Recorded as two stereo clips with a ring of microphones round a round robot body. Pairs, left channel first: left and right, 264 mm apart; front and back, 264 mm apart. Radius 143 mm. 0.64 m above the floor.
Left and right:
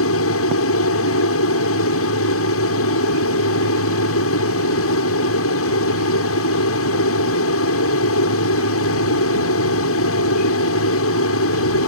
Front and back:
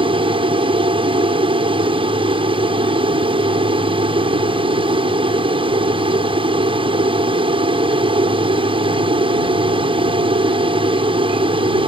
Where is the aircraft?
115° left.